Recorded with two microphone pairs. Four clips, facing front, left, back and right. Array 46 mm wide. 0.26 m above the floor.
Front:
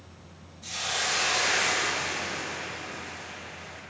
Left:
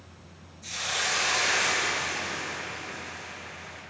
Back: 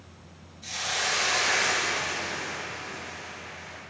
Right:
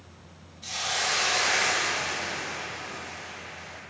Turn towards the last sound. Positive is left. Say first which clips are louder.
# right 1 dB, back 1 dB
turn(degrees=-95)